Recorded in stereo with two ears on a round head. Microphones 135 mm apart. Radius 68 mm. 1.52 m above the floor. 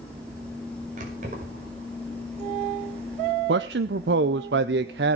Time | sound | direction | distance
1.0 | keys jangling | 50° right (ahead or behind) | 5.5 m
3.5 | a man speaking | 85° right | 0.7 m